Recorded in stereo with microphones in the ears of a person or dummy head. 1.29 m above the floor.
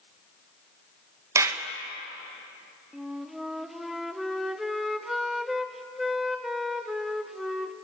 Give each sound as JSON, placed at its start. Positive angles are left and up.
{"t": 1.4, "sound": "a clap", "side_deg": -15, "distance_m": 1.3}
{"t": 2.9, "sound": "a flute", "side_deg": 0, "distance_m": 0.6}